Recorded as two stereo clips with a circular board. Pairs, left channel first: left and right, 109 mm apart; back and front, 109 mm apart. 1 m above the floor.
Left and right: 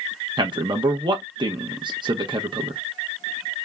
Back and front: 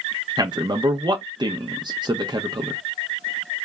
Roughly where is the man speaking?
Ahead right.